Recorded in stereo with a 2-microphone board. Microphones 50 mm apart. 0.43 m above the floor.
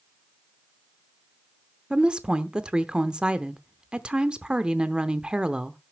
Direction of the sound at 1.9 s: 20° right (ahead or behind).